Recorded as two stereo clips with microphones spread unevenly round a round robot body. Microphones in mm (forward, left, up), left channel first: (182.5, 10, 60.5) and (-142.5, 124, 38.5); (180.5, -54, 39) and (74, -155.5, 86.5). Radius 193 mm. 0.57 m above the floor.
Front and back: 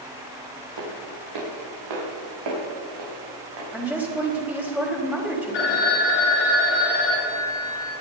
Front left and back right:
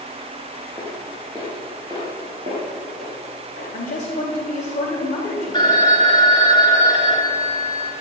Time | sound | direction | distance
0.8 | footsteps | 135° left | 4.5 m
3.7 | a woman speaking | 75° left | 3.5 m
5.5 | a phone ringing | 15° right | 3 m